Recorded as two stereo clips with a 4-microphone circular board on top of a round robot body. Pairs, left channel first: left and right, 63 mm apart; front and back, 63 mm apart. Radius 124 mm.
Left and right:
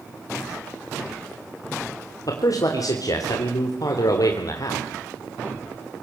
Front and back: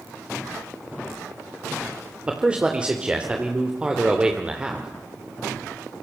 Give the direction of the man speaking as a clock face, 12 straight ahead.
8 o'clock.